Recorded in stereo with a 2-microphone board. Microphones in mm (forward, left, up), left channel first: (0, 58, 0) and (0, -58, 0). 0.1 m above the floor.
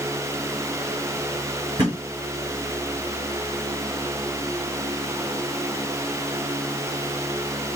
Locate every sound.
1.8 s a thud: 40° right (ahead or behind), 4 m